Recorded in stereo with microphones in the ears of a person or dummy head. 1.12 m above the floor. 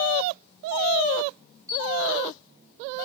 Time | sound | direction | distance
1.7 | a camera shutter | 20° right (ahead or behind) | 2 m